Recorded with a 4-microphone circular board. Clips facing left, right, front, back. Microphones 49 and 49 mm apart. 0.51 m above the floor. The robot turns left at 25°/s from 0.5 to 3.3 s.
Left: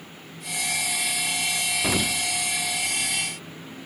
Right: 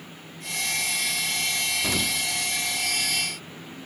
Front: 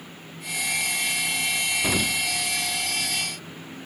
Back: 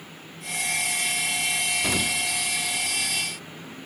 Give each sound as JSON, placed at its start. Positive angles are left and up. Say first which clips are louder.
{"t": 1.8, "sound": "an explosion", "louder": "left 2 dB, front 1 dB", "azimuth_deg": 70, "distance_m": 0.6}